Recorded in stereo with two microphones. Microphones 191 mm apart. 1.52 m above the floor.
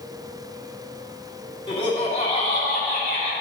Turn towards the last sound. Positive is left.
turn(degrees=50)  # may be behind; listen again after turning